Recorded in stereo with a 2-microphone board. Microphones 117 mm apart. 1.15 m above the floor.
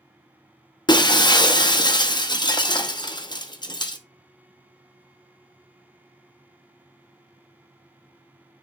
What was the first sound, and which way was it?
Breaking glass, 35° left (ahead or behind).